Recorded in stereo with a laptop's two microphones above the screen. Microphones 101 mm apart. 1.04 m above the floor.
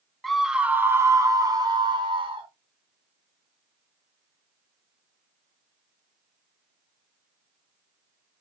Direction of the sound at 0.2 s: 5° left (ahead or behind).